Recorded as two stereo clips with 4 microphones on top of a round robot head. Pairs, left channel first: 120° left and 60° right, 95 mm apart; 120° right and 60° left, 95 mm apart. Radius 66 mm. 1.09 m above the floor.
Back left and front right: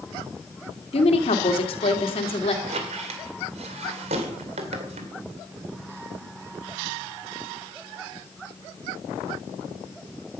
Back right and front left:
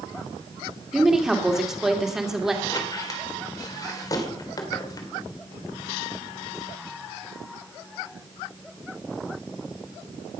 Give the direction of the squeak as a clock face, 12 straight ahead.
2 o'clock.